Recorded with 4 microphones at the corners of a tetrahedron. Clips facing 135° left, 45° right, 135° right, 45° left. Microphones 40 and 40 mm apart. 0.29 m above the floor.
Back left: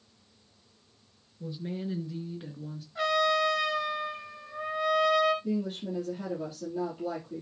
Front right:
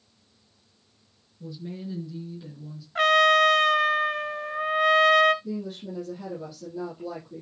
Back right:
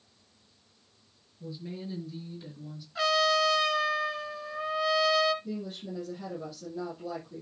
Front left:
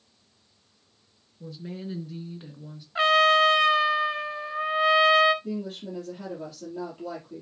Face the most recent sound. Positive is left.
turn(degrees=90)